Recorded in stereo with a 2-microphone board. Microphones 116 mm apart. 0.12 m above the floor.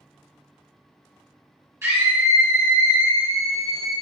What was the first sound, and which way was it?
A scream, 25° right (ahead or behind).